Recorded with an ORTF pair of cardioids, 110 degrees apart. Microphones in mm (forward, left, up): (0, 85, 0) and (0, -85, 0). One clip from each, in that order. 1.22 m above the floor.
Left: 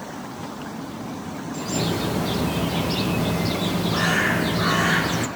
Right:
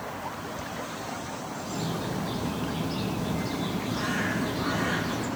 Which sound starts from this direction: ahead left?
A bird, at 1.5 s.